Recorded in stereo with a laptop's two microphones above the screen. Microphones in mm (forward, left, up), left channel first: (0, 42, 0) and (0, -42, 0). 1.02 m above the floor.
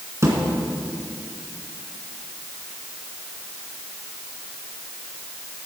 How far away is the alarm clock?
No alarm clock in this recording.